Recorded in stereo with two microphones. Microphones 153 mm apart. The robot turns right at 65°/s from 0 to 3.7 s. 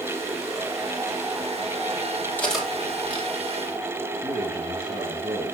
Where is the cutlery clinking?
10° left (ahead or behind), 3 m; by 3.3 s 45° right (ahead or behind), 3 m.